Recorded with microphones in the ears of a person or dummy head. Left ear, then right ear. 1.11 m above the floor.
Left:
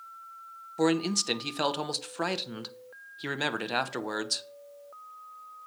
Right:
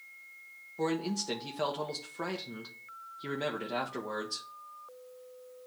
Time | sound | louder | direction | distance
0.8 | a man speaking | left 6 dB | 40° left (ahead or behind) | 0.7 m